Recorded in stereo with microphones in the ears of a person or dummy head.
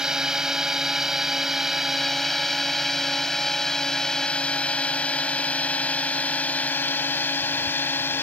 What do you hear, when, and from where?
0.0 s a drone: 5° right (ahead or behind); by 8.2 s 15° left (ahead or behind)